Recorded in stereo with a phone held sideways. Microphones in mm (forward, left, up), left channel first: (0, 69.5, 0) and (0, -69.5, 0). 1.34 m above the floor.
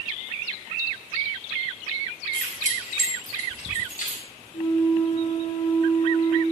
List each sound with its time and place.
2.3 s keys jangling: 80° left, 8.5 m
4.5 s a flute: 85° left, 3.5 m